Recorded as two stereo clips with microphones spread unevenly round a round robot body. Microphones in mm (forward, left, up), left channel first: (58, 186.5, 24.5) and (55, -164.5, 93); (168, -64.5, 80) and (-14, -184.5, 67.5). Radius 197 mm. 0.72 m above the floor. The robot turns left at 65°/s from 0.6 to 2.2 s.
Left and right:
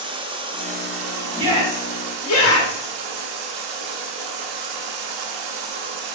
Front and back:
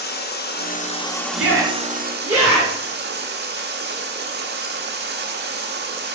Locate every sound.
0.0 s running water: 10° right, 1.2 m; by 6.1 s 115° right, 1.2 m
1.4 s a shout: 170° right, 2 m; by 2.9 s 135° left, 2 m